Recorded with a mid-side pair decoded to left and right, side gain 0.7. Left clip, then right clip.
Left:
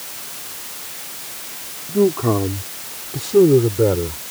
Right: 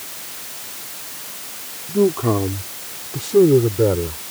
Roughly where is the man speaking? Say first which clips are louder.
Left 1 dB; ahead.